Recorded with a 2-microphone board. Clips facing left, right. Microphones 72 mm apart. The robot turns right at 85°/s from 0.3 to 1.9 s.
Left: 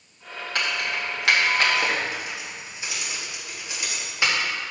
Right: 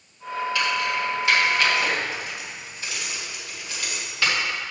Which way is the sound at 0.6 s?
45° left (ahead or behind).